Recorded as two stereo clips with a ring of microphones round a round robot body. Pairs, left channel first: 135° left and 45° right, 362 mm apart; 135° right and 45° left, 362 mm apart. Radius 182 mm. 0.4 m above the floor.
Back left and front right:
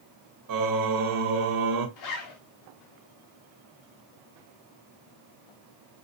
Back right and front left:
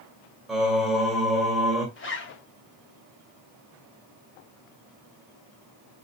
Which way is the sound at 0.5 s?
45° right.